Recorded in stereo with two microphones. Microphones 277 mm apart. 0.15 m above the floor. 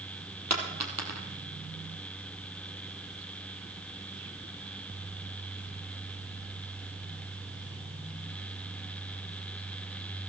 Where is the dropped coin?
75° right (ahead or behind), 2.5 m.